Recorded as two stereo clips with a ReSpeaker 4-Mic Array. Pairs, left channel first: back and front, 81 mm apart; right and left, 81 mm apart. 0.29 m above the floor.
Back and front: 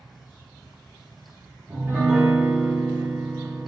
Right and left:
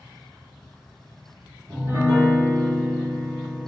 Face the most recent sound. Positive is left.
turn(degrees=50)